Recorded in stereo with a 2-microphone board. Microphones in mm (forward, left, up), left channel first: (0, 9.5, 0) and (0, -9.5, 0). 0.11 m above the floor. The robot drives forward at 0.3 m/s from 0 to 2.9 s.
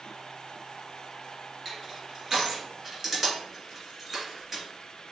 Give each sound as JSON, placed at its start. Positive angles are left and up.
{"t": 1.6, "sound": "crushing", "side_deg": -15, "distance_m": 1.9}